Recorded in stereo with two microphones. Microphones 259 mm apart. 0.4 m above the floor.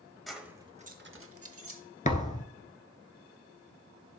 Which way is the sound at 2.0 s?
30° left (ahead or behind).